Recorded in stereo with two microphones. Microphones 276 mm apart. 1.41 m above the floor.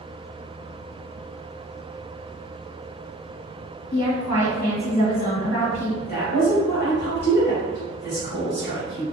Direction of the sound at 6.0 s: 35° left (ahead or behind).